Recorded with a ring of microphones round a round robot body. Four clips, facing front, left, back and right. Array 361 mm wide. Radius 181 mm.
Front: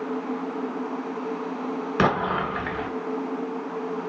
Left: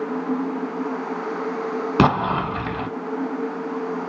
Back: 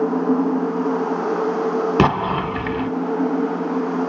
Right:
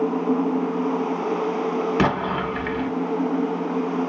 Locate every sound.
2.0 s an explosion: 145° left, 0.6 m